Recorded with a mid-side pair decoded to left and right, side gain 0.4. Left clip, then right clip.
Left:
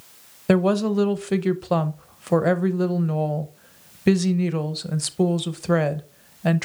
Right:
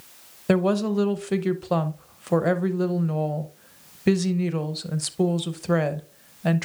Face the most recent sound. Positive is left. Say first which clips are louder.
# left 2 dB
turn(degrees=20)